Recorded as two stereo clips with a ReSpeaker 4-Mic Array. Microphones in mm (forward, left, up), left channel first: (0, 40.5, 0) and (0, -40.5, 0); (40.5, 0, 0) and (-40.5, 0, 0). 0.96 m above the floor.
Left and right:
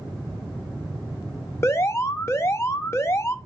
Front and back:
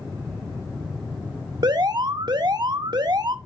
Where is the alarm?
145° left, 0.6 m.